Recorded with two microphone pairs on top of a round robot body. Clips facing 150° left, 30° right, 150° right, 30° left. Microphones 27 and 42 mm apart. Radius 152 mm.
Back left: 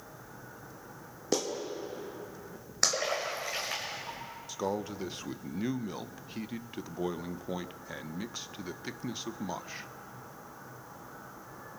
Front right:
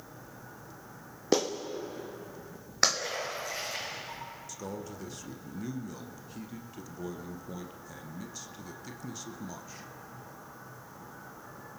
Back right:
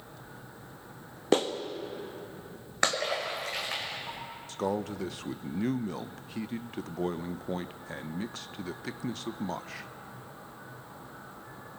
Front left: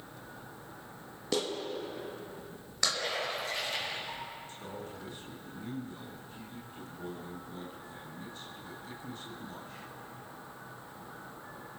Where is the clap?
95° right, 1.4 m.